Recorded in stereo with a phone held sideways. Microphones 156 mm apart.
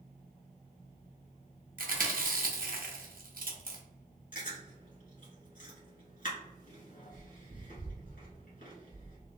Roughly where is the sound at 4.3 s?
Left.